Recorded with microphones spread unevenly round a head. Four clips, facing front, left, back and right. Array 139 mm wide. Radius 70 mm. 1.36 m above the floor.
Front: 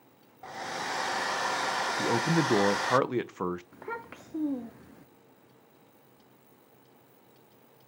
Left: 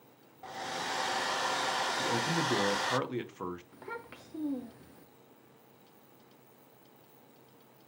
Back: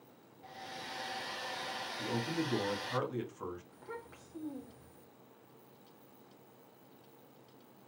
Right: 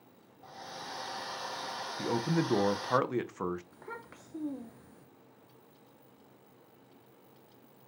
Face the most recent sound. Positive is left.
turn(degrees=10)